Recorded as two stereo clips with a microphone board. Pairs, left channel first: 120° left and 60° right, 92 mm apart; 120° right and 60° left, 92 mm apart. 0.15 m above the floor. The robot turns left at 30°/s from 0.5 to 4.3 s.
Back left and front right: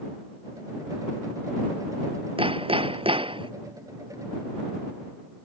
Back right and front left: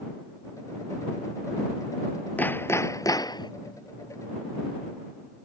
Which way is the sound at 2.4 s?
50° right.